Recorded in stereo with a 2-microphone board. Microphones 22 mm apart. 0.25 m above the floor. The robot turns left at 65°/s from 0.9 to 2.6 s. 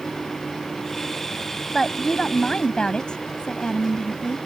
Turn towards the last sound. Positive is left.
turn(degrees=100)